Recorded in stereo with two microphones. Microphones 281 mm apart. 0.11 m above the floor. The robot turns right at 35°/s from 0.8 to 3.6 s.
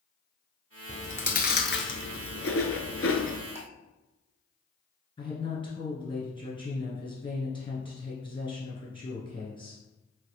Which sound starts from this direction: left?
Chewing, at 0.9 s.